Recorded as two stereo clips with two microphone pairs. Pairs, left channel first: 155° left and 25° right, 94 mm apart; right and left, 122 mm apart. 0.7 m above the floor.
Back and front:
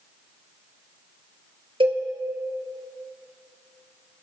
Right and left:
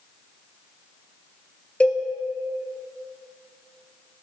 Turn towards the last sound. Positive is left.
turn(degrees=-10)